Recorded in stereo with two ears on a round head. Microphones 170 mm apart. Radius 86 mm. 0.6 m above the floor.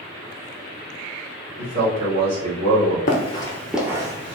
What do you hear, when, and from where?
1.6 s a man speaking: 50° right (ahead or behind), 1.5 m
3.1 s running footsteps: 40° left (ahead or behind), 0.8 m; by 4.4 s 30° right (ahead or behind), 1.0 m